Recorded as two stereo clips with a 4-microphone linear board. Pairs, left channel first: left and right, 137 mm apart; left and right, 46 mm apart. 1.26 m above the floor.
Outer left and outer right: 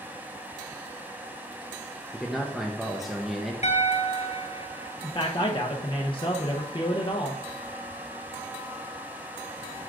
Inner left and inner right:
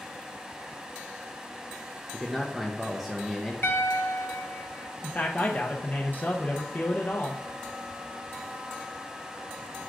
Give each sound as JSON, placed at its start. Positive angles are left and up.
{"t": 2.1, "sound": "a man speaking", "side_deg": 0, "distance_m": 0.8}
{"t": 3.6, "sound": "a piano", "side_deg": 55, "distance_m": 0.8}
{"t": 5.0, "sound": "a man speaking", "side_deg": 35, "distance_m": 0.7}